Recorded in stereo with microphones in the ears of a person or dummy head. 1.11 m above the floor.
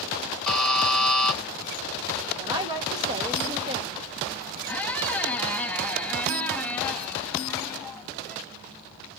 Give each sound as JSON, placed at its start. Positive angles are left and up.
{"t": 0.5, "sound": "a buzzer", "side_deg": 5, "distance_m": 3.0}
{"t": 2.3, "sound": "a woman speaking", "side_deg": -15, "distance_m": 0.8}
{"t": 4.7, "sound": "a squeak", "side_deg": 10, "distance_m": 0.5}